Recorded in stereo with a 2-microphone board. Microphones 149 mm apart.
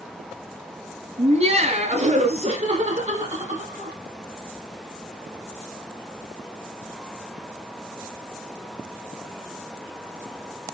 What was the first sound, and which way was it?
Laughter, 45° right (ahead or behind).